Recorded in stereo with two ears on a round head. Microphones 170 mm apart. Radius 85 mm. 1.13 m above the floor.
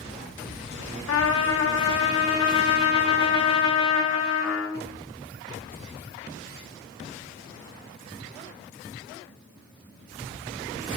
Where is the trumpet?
75° left (ahead or behind), 0.6 m.